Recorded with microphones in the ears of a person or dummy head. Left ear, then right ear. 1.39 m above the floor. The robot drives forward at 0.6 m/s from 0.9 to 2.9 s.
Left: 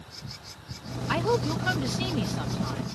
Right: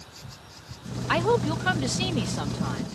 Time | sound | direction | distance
1.1 | a woman speaking | 15° right (ahead or behind) | ?